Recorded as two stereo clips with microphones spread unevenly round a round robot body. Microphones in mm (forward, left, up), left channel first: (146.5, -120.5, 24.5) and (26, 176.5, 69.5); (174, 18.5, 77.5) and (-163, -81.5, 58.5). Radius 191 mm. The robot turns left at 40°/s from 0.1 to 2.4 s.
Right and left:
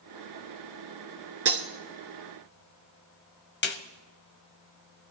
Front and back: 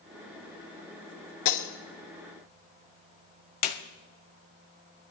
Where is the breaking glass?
65° left, 1.5 m; by 1.7 s 55° left, 1.5 m.